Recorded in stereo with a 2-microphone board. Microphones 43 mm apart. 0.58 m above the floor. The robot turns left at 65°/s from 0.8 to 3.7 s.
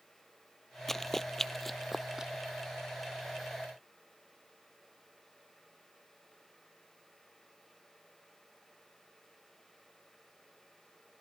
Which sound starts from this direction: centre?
Running footsteps, at 0.9 s.